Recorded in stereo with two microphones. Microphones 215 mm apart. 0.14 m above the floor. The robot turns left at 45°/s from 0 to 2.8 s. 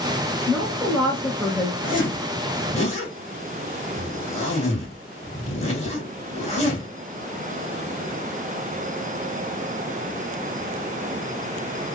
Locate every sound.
0.5 s a woman speaking: 5° right (ahead or behind), 1.1 m; by 1.7 s 15° left (ahead or behind), 1.1 m
1.8 s a zipper: 40° left (ahead or behind), 1.8 m; by 6.9 s 30° left (ahead or behind), 1.8 m